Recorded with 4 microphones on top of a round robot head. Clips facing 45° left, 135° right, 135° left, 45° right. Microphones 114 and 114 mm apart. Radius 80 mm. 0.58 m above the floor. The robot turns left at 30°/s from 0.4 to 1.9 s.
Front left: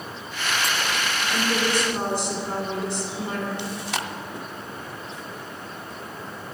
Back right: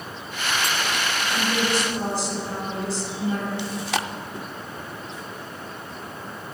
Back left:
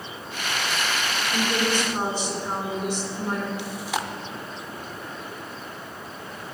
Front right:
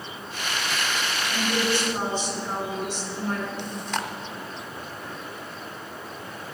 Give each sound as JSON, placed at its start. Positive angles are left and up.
{"t": 1.3, "sound": "a woman speaking", "azimuth_deg": 75, "distance_m": 2.5}
{"t": 3.6, "sound": "chewing", "azimuth_deg": -140, "distance_m": 0.5}